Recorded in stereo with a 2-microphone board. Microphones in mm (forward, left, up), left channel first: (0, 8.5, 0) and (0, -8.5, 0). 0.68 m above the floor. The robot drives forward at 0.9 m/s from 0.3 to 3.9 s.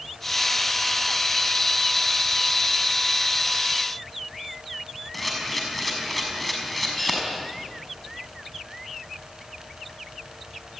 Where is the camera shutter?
5° left (ahead or behind), 6 m.